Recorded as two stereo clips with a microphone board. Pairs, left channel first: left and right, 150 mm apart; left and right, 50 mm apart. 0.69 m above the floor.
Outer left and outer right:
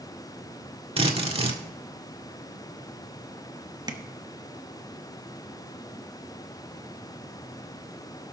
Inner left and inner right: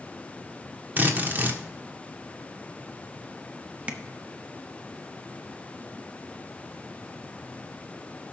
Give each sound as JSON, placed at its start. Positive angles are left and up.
{"t": 1.0, "sound": "a drill", "side_deg": -40, "distance_m": 1.5}
{"t": 3.9, "sound": "tapping", "side_deg": -25, "distance_m": 1.1}